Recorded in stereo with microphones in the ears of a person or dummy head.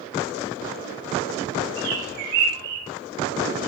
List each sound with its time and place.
1.8 s a bird: 70° right (ahead or behind), 7.5 m